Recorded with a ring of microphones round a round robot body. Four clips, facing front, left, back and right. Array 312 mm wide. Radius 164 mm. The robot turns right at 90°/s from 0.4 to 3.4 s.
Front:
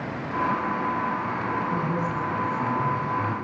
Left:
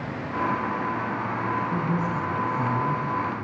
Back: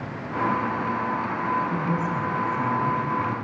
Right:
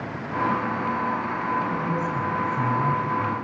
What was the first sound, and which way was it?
A woman speaking, 175° left.